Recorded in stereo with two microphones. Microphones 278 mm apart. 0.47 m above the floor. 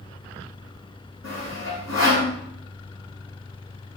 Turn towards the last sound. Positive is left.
turn(degrees=70)  # may be behind; listen again after turning